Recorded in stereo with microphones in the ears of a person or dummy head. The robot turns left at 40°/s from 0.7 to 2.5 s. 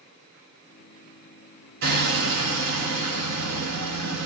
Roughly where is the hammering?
Right.